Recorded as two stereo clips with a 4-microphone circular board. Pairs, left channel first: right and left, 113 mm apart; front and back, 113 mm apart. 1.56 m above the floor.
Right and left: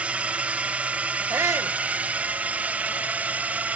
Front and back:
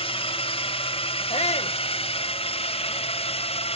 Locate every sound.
0.0 s a drone: 10° left; by 3.8 s 15° left
1.3 s a shout: 25° left